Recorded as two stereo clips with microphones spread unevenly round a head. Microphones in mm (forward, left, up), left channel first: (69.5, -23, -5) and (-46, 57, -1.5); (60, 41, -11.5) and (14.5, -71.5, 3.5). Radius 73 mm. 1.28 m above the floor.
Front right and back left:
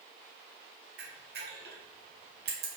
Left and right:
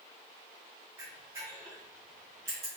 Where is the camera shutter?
170° left, 1.1 m.